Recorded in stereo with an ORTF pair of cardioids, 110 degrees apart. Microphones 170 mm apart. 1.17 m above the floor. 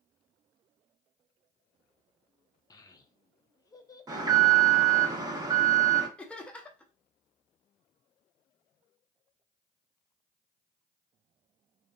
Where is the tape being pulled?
I don't hear tape being pulled.